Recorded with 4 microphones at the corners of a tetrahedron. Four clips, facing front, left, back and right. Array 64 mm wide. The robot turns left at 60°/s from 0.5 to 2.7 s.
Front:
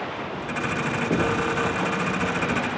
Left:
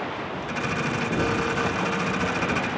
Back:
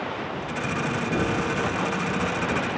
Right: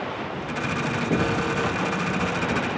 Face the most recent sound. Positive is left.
turn(degrees=-120)